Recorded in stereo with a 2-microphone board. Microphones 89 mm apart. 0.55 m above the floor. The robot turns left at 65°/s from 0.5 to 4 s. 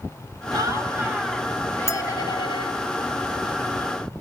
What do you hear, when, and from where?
0.5 s laughter: 125° right, 3.5 m; by 2.8 s 90° left, 3.5 m
1.9 s a clink: 35° left (ahead or behind), 1.5 m; by 2.0 s 40° left (ahead or behind), 1.5 m